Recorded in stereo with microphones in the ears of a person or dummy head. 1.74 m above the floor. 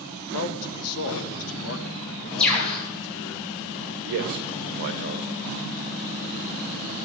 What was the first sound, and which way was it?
A man speaking, 80° left.